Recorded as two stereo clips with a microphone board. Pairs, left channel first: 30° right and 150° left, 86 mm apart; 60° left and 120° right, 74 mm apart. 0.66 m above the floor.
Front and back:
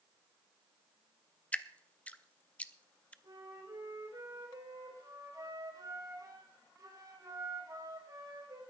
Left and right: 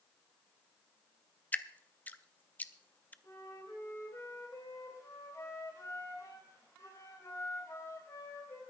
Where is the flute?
105° left, 3 m.